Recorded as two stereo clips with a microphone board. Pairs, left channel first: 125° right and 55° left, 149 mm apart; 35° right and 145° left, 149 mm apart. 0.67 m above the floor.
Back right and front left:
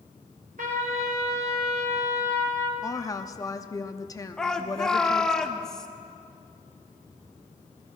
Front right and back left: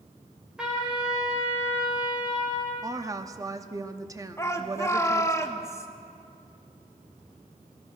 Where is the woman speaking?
170° right, 0.6 m.